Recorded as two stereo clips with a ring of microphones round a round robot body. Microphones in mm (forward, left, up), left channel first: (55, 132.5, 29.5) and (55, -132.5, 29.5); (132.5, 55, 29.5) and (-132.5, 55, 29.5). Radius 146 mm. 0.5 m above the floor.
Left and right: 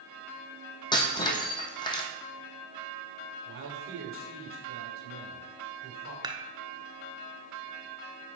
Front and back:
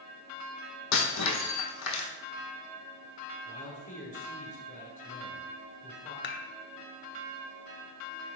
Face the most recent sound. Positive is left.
turn(degrees=-20)